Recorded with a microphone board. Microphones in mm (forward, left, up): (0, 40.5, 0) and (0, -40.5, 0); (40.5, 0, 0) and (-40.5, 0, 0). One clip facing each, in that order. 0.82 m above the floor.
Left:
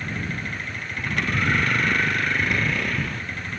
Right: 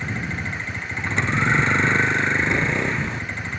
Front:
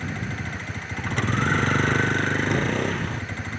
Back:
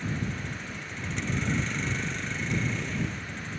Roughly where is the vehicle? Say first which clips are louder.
Right 2 dB, front 2 dB; ahead right.